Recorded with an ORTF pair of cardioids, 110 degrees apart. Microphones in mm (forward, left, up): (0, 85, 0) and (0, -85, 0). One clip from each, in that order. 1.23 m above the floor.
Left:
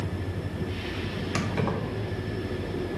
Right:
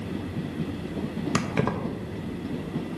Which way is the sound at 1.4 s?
30° right.